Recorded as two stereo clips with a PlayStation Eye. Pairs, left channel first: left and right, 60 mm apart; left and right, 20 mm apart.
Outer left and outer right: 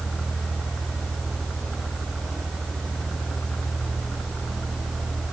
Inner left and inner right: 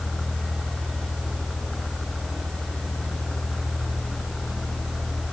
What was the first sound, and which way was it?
Only background noise.